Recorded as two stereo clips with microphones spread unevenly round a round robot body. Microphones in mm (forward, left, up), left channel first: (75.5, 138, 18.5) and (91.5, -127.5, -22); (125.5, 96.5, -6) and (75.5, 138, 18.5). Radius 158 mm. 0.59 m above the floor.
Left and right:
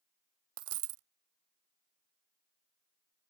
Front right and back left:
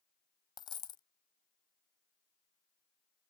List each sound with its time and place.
0.6 s a dropped coin: 45° right